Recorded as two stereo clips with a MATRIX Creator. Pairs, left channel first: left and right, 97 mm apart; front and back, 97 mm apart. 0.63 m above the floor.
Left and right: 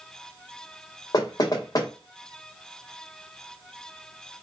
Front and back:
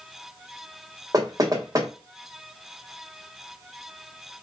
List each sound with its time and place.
1.1 s knocking: 130° left, 1.3 m